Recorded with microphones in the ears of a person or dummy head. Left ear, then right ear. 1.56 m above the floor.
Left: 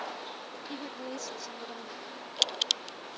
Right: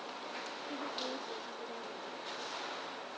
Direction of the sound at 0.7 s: 65° left (ahead or behind).